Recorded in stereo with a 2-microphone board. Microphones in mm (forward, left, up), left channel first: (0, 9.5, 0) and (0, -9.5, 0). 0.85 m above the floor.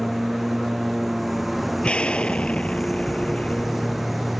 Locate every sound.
0.0 s a lawn mower: 10° right (ahead or behind)
1.8 s an explosion: 65° left (ahead or behind)